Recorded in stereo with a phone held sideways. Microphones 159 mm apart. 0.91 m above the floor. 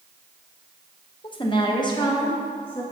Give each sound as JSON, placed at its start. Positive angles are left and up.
{"t": 1.2, "sound": "a woman speaking", "side_deg": 35, "distance_m": 1.0}